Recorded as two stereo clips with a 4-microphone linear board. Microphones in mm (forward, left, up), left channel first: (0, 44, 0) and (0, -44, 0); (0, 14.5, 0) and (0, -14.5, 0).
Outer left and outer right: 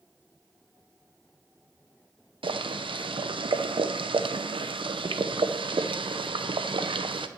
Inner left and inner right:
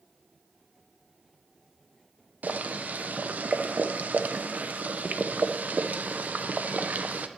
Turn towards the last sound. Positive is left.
turn(degrees=-70)  # may be behind; listen again after turning